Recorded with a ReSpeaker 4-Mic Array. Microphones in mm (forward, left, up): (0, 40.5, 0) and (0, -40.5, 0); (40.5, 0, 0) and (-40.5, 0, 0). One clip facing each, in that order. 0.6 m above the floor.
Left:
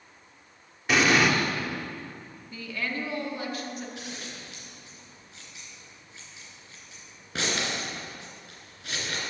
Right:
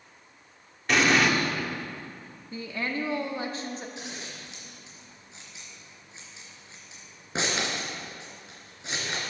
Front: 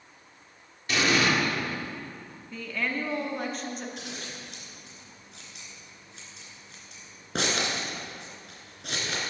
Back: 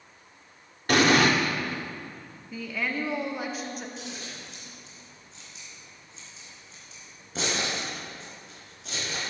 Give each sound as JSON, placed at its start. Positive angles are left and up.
{"t": 0.9, "sound": "an explosion", "azimuth_deg": 175, "distance_m": 1.3}
{"t": 2.5, "sound": "a woman speaking", "azimuth_deg": -105, "distance_m": 1.3}
{"t": 4.0, "sound": "scissors", "azimuth_deg": -25, "distance_m": 3.0}